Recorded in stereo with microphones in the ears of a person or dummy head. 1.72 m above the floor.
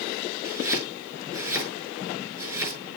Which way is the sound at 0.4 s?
15° right (ahead or behind).